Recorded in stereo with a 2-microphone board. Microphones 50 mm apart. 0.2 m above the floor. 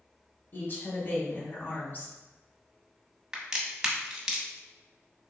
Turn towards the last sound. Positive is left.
turn(degrees=-10)  # may be behind; listen again after turning